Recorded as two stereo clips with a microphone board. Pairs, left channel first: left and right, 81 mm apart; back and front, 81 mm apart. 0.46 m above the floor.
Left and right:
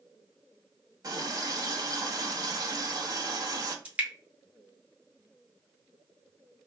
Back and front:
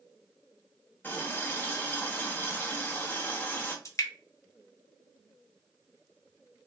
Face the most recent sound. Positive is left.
turn(degrees=-155)